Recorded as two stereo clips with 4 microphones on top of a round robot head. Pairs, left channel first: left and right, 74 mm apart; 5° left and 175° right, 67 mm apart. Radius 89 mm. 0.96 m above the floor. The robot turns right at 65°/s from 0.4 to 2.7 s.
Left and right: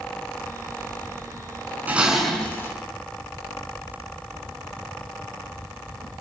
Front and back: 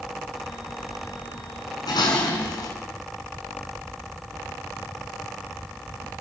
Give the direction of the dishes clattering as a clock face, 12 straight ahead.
1 o'clock.